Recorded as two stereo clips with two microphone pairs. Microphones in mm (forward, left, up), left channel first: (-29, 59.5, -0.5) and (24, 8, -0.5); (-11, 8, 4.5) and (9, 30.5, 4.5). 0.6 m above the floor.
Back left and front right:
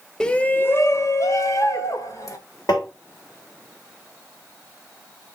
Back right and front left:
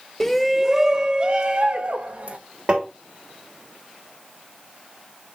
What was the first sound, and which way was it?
A shout, 175° right.